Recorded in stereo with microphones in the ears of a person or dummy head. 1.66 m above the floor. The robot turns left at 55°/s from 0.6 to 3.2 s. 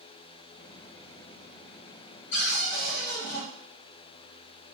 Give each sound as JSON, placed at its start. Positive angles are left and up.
{"t": 2.3, "sound": "a cupboard door", "azimuth_deg": 65, "distance_m": 1.3}